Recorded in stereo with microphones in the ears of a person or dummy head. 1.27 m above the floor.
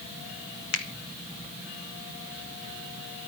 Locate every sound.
0.7 s a finger snap: 70° left (ahead or behind), 1.4 m